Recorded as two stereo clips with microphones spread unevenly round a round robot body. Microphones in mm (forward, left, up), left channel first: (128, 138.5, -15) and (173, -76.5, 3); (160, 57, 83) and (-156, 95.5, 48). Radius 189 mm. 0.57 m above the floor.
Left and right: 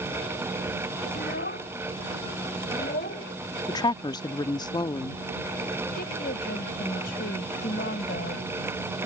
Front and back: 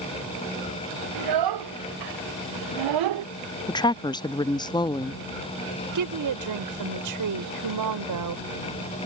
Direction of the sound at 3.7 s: 70° left.